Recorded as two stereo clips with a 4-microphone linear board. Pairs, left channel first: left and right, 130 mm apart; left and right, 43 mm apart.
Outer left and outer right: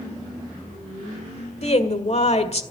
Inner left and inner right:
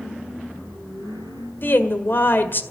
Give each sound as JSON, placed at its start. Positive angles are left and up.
{"t": 1.6, "sound": "a woman speaking", "side_deg": 55, "distance_m": 1.7}